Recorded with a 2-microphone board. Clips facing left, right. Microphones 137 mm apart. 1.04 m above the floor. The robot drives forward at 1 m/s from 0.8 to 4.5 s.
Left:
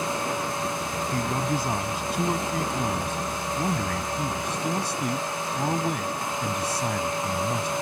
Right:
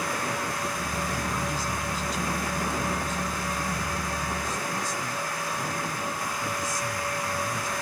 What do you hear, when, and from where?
1.1 s a man speaking: 55° left (ahead or behind); by 7.7 s 70° left (ahead or behind)